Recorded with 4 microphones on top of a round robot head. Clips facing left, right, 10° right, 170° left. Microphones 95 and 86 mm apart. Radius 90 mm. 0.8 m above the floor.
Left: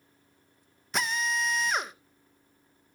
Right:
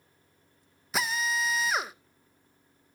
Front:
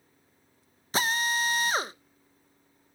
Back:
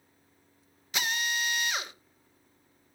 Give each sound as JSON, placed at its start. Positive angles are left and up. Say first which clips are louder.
{"t": 0.9, "sound": "a drill", "louder": "even, front 5 dB", "azimuth_deg": -5, "distance_m": 0.7}